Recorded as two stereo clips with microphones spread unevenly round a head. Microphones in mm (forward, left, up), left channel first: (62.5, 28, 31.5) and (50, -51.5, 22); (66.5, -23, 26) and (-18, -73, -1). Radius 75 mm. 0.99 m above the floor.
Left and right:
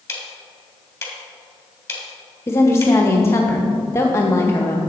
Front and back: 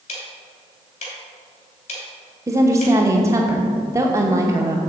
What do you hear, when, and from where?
0.1 s ticking: 20° left, 2.5 m
2.5 s a woman speaking: 150° left, 0.7 m